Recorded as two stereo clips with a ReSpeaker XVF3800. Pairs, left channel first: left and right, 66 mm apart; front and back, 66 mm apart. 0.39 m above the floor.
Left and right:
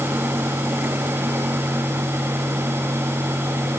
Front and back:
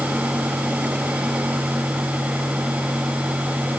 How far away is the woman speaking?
I don't hear a woman speaking.